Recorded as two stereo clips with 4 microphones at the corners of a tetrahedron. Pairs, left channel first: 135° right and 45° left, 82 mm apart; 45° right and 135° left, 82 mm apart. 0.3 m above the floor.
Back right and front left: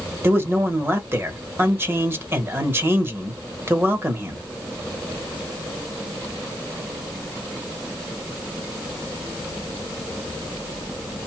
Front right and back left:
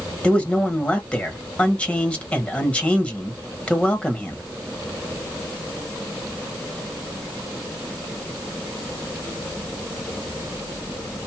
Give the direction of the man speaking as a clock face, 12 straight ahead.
12 o'clock.